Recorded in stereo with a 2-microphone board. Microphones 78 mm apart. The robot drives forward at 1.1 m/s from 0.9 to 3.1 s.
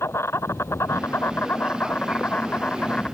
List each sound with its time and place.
0.0 s an insect: 35° left (ahead or behind); by 3.1 s 15° left (ahead or behind)